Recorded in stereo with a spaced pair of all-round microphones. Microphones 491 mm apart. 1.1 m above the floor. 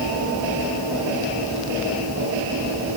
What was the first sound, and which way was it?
Only background noise.